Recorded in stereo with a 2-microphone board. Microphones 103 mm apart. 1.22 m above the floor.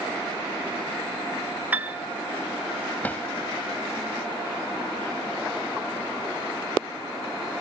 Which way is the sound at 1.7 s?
15° right (ahead or behind).